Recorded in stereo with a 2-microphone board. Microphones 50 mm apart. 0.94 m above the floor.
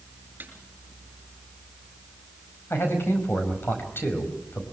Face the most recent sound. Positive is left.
turn(degrees=50)  # may be behind; listen again after turning